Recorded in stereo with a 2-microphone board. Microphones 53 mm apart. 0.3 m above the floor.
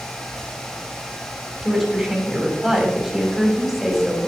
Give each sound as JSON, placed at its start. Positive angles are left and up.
{"t": 1.6, "sound": "a woman speaking", "side_deg": -5, "distance_m": 2.0}